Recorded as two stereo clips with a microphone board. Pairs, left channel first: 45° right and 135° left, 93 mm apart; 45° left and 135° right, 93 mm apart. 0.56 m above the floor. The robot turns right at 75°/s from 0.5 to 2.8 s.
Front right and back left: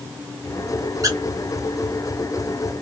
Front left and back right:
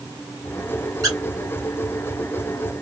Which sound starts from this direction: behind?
A squeak, at 1.0 s.